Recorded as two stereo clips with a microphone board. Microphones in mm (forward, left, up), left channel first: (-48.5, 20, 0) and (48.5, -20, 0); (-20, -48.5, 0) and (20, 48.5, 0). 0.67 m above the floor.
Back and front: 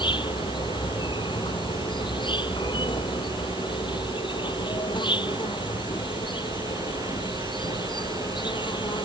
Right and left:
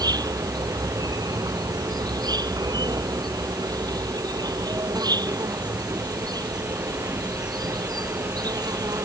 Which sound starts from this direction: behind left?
An insect, at 0.0 s.